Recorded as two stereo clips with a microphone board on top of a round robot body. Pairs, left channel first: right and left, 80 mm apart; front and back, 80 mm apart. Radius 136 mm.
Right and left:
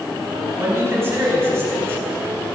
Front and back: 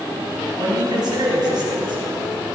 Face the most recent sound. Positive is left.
turn(degrees=150)